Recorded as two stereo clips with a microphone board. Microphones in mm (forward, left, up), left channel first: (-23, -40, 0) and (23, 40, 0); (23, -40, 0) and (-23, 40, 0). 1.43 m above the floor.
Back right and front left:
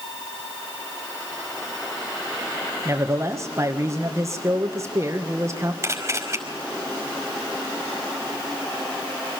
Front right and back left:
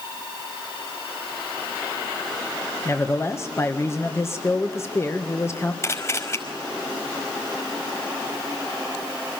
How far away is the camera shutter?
About 5 m.